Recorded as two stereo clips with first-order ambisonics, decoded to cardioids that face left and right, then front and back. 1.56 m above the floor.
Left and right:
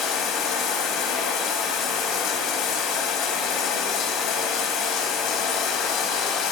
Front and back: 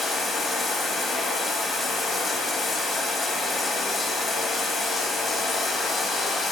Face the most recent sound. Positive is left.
turn(degrees=75)